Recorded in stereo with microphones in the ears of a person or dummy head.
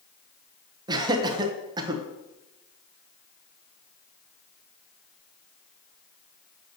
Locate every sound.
0.9 s laughter: 25° right (ahead or behind), 1.1 m